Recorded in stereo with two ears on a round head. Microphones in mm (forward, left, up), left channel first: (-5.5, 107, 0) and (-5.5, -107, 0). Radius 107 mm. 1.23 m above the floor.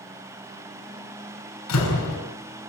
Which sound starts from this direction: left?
A door slam, at 1.7 s.